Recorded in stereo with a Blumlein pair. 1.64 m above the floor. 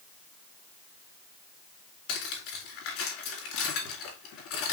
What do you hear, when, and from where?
2.1 s cutlery clinking: 45° left, 2.5 m